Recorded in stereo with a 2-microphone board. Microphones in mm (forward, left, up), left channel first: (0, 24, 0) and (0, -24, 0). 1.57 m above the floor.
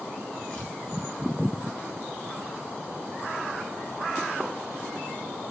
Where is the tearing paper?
20° left (ahead or behind), 7.5 m.